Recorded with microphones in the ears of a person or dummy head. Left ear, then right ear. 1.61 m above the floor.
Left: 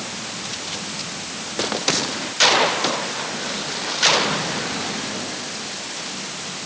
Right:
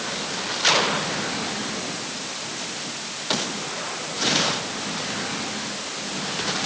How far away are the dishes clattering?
I don't hear dishes clattering.